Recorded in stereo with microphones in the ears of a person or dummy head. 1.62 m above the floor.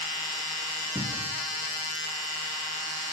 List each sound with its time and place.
0.9 s a cupboard door: 5° right (ahead or behind), 1.1 m